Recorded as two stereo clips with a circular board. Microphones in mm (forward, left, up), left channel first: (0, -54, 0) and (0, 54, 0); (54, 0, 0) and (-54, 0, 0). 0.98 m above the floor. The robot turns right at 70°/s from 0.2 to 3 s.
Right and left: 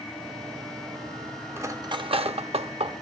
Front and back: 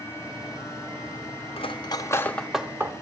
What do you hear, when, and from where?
1.6 s cutlery clinking: 25° left, 0.7 m; by 2.9 s 120° left, 0.7 m